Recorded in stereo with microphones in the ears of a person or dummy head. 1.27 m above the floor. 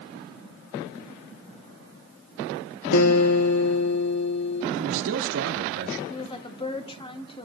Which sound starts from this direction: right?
A man speaking, at 4.7 s.